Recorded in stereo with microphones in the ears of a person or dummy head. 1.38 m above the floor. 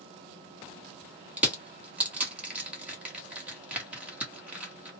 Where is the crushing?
10° right (ahead or behind), 1.3 m.